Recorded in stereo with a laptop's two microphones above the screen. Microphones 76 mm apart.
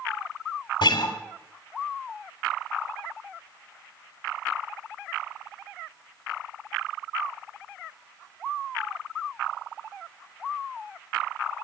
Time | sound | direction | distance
0.8 | a guitar | 80° left | 2.5 m